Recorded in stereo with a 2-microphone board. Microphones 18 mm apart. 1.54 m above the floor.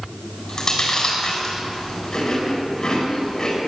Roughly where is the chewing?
Left.